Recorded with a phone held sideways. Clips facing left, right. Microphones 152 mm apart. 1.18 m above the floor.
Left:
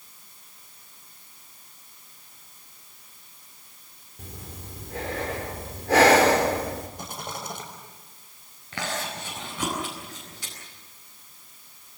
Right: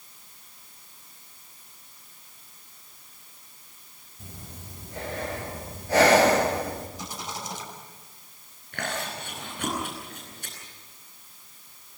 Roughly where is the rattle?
Left.